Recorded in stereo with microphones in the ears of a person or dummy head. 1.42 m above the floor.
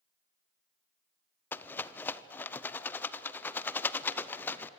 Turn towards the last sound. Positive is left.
turn(degrees=15)  # may be behind; listen again after turning